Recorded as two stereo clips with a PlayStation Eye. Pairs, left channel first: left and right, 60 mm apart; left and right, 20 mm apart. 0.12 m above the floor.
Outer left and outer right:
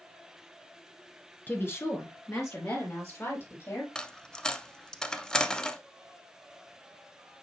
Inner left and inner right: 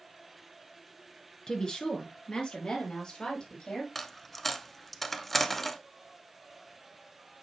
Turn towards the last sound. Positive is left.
turn(degrees=15)  # may be behind; listen again after turning